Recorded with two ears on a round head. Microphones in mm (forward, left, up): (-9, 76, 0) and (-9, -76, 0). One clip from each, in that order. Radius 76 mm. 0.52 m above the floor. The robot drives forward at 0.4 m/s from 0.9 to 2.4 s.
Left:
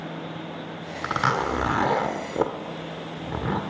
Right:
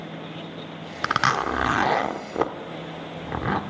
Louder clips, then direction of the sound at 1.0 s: Right 2 dB; 50° right (ahead or behind).